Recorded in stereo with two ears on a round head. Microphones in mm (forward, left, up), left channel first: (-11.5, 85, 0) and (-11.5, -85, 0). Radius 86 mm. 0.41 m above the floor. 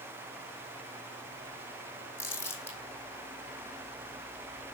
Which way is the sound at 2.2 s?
15° left (ahead or behind).